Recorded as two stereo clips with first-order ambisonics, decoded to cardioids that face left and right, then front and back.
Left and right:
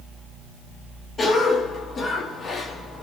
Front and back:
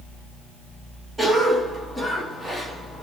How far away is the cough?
About 0.6 m.